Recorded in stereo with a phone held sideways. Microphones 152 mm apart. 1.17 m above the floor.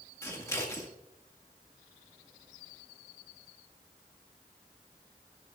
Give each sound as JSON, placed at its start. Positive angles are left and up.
{"t": 0.2, "sound": "scissors", "side_deg": 20, "distance_m": 1.7}